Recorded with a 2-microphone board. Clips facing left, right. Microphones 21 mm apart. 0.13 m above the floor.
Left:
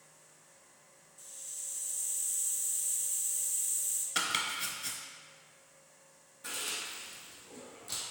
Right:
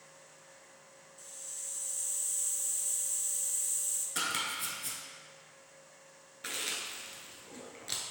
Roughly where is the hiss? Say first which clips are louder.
Even; centre.